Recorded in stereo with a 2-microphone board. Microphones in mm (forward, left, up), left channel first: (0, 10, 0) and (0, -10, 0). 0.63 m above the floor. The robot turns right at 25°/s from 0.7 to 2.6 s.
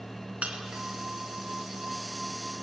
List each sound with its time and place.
0.4 s breaking glass: 85° right, 3 m